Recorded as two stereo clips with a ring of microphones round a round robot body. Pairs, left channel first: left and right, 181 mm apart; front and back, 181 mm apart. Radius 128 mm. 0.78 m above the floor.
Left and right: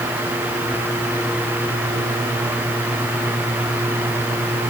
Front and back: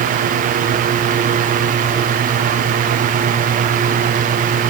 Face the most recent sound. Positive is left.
No sound to turn to.